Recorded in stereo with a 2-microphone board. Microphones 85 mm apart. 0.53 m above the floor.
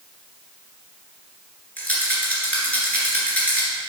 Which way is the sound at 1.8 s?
20° left (ahead or behind).